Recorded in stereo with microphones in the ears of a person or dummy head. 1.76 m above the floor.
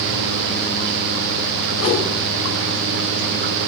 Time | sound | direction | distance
1.8 | a whoosh | 70° left (ahead or behind) | 8.5 m